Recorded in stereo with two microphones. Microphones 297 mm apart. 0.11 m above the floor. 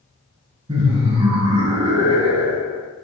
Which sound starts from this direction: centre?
Laughter, at 0.7 s.